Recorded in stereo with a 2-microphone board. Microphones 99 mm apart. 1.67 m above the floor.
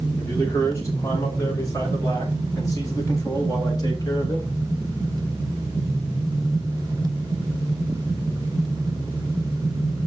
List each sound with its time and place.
0.2 s a man speaking: 30° left (ahead or behind), 5.5 m; by 4.6 s 40° left (ahead or behind), 3.5 m